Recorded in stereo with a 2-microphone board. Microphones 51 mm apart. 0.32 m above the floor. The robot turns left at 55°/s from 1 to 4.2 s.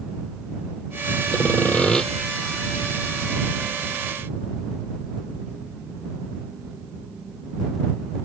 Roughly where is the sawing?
Ahead left.